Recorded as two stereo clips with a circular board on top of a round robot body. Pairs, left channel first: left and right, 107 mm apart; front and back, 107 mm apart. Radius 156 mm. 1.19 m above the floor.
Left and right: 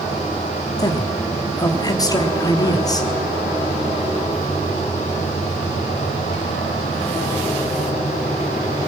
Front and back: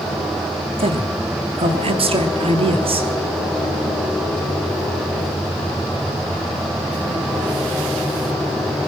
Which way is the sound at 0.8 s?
145° left.